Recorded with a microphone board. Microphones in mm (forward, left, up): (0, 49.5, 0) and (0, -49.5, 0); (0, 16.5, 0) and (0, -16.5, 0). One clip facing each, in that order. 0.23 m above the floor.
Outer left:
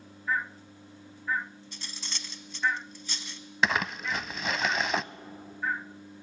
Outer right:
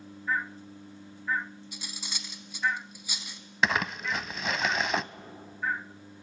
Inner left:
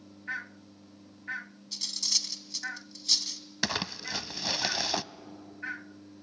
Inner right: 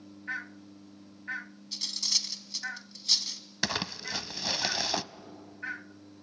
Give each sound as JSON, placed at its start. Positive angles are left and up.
{"t": 1.7, "sound": "cutlery clinking", "side_deg": -10, "distance_m": 1.2}
{"t": 3.6, "sound": "crumpling", "side_deg": 0, "distance_m": 0.5}